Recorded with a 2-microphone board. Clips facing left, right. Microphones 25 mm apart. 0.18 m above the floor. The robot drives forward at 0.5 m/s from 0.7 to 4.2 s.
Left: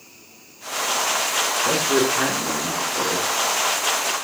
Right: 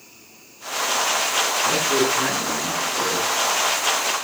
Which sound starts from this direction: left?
A man speaking, at 1.6 s.